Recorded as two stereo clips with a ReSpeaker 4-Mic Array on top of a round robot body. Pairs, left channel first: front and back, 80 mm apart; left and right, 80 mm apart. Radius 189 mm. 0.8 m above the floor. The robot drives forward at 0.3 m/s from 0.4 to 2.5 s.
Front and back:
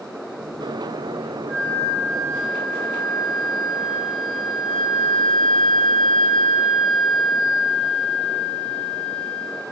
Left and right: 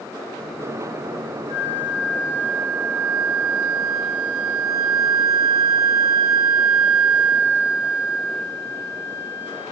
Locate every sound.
1.5 s a flute: 75° right, 1.1 m; by 9.7 s 95° right, 1.0 m